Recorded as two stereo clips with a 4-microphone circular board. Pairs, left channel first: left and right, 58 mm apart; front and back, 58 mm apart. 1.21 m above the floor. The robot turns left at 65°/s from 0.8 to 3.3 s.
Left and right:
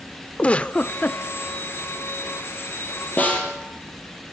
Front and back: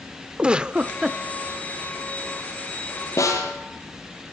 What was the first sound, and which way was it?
A giggle, 130° left.